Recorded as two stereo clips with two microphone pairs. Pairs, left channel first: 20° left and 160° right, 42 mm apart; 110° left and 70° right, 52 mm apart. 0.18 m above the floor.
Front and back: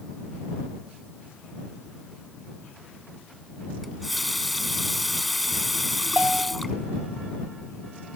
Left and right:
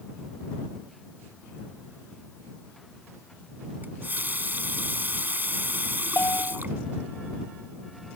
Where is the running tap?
70° right.